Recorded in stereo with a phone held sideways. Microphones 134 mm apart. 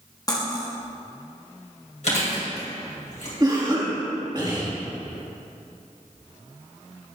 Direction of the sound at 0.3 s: 30° left (ahead or behind).